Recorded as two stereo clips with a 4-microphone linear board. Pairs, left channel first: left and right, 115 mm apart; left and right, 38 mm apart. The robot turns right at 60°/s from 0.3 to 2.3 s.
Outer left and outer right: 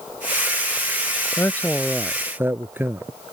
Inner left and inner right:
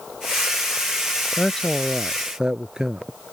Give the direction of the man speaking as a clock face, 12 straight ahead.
7 o'clock.